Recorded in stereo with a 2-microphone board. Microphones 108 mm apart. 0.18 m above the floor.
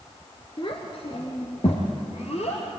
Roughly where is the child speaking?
Left.